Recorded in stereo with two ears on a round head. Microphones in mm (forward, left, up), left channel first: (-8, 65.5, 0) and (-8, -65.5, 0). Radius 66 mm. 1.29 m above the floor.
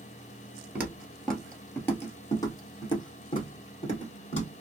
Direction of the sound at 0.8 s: 10° right (ahead or behind).